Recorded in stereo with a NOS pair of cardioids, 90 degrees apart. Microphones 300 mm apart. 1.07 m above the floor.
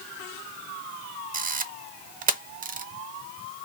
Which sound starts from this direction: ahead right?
A camera shutter, at 1.3 s.